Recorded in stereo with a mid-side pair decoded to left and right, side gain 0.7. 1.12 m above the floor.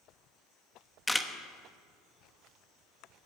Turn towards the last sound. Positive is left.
turn(degrees=5)